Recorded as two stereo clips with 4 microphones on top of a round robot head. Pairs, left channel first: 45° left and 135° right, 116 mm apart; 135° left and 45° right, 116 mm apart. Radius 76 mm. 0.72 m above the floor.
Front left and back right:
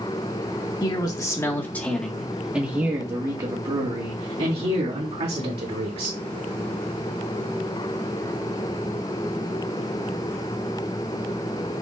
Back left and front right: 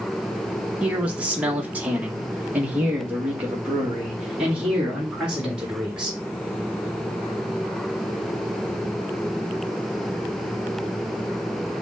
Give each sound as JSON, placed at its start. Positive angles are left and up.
{"t": 0.8, "sound": "a man speaking", "azimuth_deg": 30, "distance_m": 1.2}